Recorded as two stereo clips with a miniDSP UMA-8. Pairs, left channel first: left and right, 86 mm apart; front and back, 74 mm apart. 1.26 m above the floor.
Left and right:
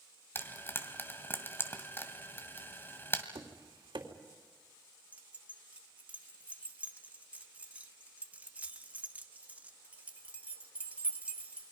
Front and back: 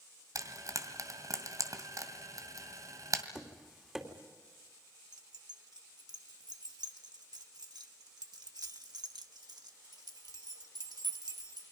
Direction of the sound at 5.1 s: 160° right.